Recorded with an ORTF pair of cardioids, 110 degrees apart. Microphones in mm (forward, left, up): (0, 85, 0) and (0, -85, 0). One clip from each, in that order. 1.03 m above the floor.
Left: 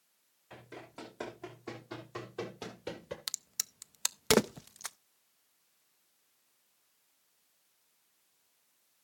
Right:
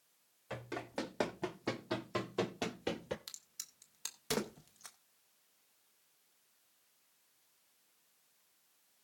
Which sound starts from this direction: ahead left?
A crack, at 3.3 s.